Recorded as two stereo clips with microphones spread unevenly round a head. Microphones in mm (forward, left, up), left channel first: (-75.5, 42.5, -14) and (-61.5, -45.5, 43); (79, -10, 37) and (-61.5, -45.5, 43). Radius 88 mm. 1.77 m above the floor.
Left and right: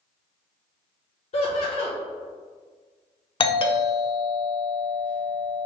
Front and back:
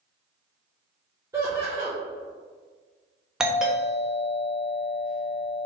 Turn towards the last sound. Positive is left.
turn(degrees=105)